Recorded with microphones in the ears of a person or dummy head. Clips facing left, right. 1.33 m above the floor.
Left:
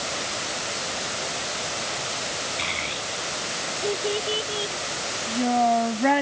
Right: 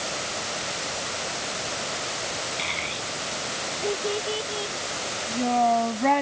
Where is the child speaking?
Centre (ahead or behind); by 6.2 s 10° left (ahead or behind).